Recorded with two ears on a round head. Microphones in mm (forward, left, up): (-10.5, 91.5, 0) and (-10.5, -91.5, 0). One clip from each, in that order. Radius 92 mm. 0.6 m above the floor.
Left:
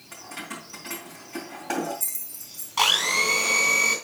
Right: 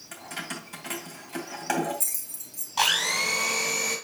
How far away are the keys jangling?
About 2.5 m.